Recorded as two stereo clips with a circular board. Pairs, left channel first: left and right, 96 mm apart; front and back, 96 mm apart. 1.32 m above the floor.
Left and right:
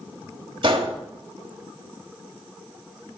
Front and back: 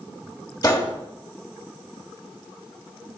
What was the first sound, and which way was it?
A gunshot, 50° right.